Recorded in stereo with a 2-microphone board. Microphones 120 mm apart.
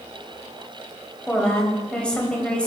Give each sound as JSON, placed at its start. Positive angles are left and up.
{"t": 1.3, "sound": "a woman speaking", "side_deg": 10, "distance_m": 1.6}